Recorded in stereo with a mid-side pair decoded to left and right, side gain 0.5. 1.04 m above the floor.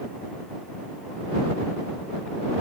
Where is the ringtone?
No ringtone in this recording.